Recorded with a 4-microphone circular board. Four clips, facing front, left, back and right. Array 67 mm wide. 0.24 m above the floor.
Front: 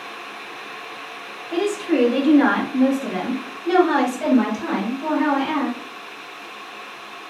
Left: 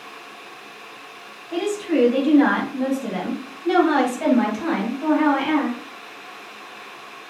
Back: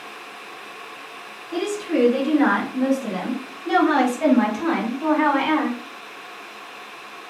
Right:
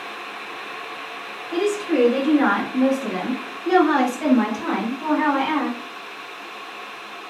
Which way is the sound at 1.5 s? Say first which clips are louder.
Right 1 dB, front 2 dB; 15° left.